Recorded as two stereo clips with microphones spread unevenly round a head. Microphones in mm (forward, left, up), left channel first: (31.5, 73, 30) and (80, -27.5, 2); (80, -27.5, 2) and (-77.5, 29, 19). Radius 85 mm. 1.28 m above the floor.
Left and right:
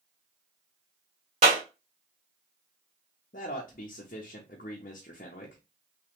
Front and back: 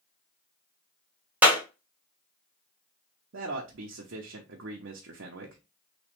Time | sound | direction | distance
1.4 | a clap | 120° right | 1.3 m
3.3 | a man speaking | 150° left | 0.7 m